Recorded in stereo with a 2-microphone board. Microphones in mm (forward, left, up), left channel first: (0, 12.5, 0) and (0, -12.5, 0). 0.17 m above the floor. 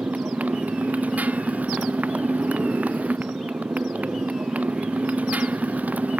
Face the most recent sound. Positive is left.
turn(degrees=-85)